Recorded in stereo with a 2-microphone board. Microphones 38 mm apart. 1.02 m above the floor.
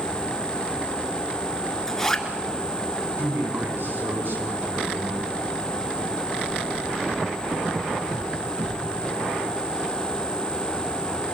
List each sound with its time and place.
1.9 s a zipper: 10° left (ahead or behind), 2.5 m
3.2 s a man speaking: 85° right, 9 m